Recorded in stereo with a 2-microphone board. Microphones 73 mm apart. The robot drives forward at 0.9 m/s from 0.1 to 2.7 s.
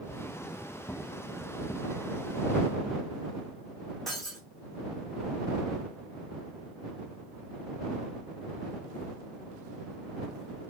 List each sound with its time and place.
4.1 s breaking glass: 5° left (ahead or behind), 3 m